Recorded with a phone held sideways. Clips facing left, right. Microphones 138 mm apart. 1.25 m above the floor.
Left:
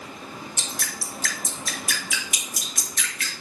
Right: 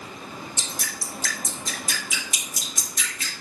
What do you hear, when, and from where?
0.6 s dripping: 70° left (ahead or behind), 3.5 m